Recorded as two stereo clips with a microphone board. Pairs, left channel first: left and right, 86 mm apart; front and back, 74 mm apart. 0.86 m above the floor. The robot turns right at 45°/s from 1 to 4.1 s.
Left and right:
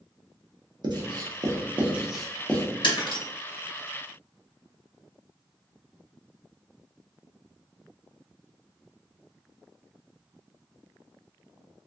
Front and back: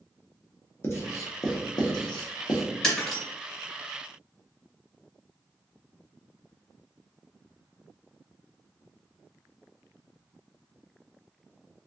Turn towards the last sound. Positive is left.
turn(degrees=135)